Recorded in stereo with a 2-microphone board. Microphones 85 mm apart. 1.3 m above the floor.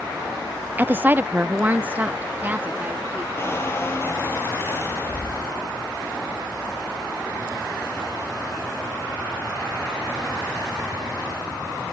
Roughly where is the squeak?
Left.